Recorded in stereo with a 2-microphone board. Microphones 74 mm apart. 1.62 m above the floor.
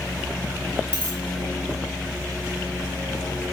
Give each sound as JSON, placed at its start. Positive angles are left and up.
{"t": 0.9, "sound": "a dropped coin", "side_deg": -20, "distance_m": 2.0}